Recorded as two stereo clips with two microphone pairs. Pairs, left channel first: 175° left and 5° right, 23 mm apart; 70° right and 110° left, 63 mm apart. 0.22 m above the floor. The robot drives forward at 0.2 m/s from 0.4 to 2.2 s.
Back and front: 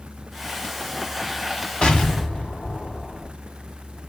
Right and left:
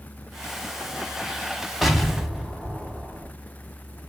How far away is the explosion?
About 0.8 m.